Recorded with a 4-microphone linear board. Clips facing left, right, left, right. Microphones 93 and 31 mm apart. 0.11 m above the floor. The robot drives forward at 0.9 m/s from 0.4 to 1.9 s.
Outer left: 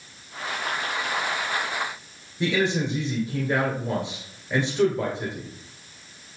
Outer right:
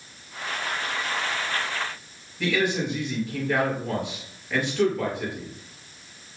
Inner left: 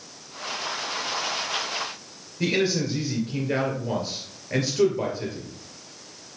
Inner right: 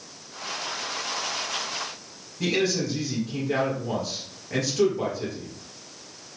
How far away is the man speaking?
About 2.5 m.